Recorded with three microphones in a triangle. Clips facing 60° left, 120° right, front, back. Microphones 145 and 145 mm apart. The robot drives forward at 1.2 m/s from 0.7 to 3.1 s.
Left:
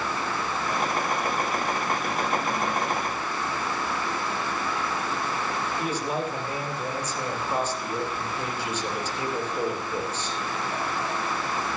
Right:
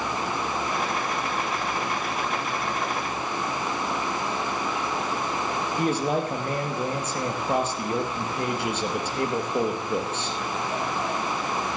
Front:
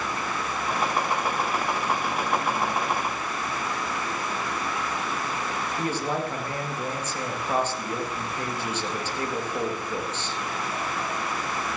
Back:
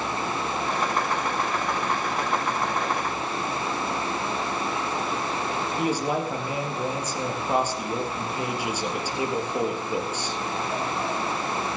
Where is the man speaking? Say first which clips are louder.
Right 6 dB, back 2 dB; 105° right, 3.5 m.